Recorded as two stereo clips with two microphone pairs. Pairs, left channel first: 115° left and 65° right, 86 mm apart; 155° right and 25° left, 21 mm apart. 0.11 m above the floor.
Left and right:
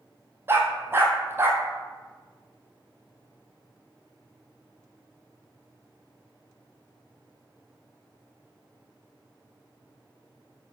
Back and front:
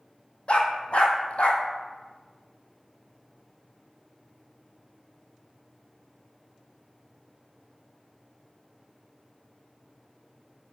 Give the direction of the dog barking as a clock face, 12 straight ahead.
4 o'clock.